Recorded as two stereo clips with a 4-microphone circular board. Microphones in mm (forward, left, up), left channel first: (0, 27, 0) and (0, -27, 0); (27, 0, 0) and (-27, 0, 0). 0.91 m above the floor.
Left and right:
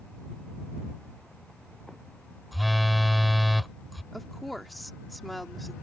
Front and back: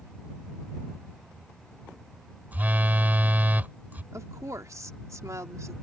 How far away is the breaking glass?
No breaking glass in this recording.